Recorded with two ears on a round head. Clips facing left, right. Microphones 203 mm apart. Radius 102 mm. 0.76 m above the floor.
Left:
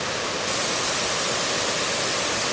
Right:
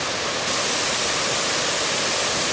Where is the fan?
No fan in this recording.